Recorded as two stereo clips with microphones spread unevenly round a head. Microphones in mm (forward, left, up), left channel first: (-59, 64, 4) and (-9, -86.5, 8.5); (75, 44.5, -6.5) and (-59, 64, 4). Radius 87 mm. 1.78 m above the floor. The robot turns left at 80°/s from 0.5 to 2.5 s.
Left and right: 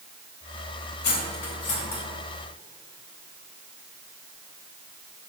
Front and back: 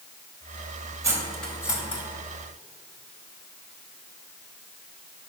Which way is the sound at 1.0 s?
110° left.